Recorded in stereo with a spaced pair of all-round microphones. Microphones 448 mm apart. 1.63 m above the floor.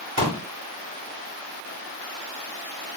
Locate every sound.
0.2 s a pop: 35° right (ahead or behind), 2 m